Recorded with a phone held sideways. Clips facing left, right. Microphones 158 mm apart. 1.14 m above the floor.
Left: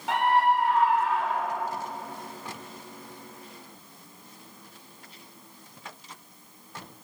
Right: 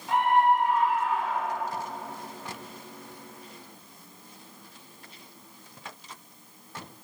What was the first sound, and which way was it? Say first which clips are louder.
A scream: right 1 dB; 75° left (ahead or behind).